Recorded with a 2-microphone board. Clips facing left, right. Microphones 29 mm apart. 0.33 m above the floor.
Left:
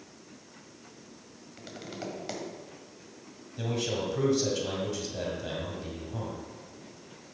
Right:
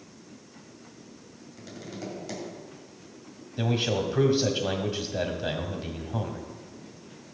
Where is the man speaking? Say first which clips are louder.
Right 4 dB; 35° right (ahead or behind), 1.8 m.